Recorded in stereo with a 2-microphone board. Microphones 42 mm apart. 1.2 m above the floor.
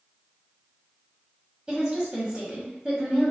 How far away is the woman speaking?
About 1.7 m.